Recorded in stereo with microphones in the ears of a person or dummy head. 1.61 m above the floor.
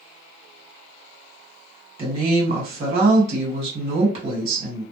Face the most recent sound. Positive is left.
turn(degrees=-40)  # may be behind; listen again after turning